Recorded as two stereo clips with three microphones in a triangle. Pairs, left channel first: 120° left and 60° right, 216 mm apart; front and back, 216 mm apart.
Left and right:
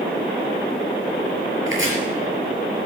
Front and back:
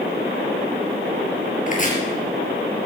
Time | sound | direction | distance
1.7 | chopping | 50° right | 4.5 m